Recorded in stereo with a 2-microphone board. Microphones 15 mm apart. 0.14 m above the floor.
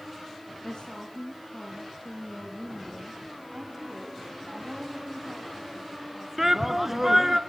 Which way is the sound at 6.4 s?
20° right (ahead or behind).